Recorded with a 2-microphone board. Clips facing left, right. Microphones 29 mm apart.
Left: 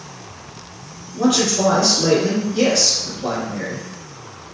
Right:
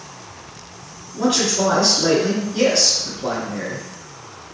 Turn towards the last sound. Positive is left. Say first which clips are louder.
# left 2 dB
turn(degrees=-20)  # may be behind; listen again after turning